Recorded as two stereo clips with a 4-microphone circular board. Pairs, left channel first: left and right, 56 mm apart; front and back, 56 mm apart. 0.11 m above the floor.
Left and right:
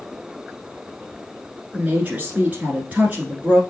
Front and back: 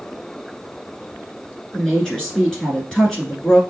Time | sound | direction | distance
1.7 | a woman speaking | 65° right | 1.2 m